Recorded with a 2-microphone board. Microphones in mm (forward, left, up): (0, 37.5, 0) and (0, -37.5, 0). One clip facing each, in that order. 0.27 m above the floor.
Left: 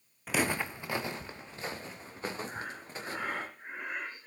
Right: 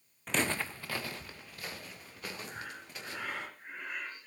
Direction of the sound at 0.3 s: 5° left (ahead or behind).